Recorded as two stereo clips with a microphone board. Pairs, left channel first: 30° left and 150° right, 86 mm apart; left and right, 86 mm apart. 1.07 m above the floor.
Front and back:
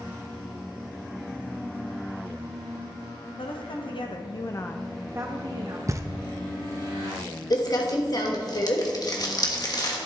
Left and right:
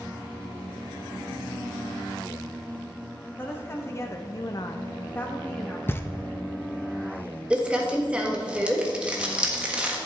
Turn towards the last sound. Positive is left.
turn(degrees=-10)